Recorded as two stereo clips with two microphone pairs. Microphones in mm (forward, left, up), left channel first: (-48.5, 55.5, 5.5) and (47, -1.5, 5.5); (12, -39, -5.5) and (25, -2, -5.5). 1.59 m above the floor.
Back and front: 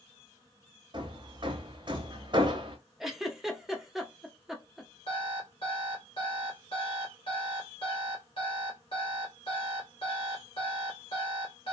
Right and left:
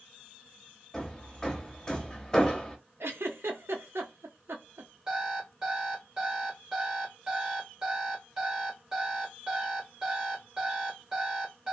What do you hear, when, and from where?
0.9 s hammering: 45° right, 0.7 m
3.0 s a giggle: 60° left, 0.6 m
5.1 s an alarm clock: 145° left, 1.5 m